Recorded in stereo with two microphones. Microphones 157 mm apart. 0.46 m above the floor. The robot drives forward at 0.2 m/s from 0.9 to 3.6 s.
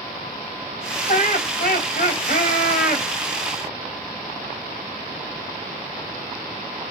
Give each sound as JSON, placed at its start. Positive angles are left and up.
{"t": 1.1, "sound": "laughter", "side_deg": 65, "distance_m": 3.0}